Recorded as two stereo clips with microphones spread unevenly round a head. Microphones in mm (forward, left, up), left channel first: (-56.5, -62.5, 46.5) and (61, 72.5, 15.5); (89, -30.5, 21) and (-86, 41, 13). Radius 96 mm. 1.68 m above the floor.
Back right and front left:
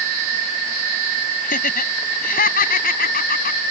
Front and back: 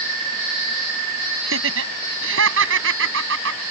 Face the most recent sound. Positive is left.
turn(degrees=-175)